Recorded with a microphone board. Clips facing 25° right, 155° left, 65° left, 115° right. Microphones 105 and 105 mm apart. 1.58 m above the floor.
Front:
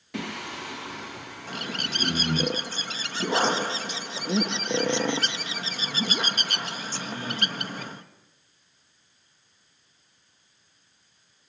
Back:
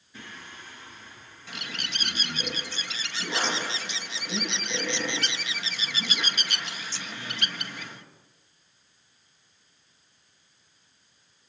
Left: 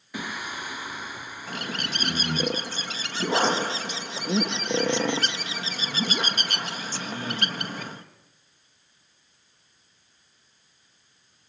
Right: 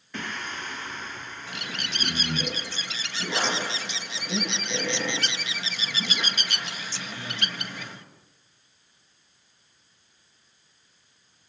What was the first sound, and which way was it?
Singing, 10° right.